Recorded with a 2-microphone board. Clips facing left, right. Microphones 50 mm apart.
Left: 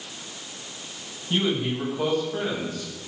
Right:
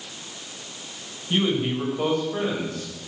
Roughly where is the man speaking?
Right.